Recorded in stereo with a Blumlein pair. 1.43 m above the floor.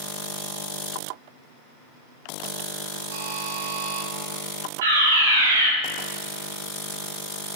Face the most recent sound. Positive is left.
turn(degrees=-60)